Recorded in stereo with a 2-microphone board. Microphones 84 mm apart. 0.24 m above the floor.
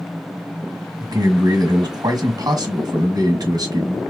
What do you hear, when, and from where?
1.0 s a man speaking: 50° right (ahead or behind), 1.6 m